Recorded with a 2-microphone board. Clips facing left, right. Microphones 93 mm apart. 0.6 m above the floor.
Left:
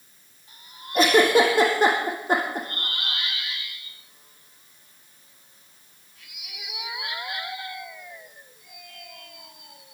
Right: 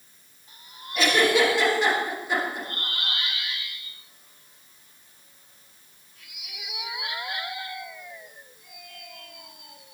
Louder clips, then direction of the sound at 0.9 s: Left 4 dB; 45° left (ahead or behind).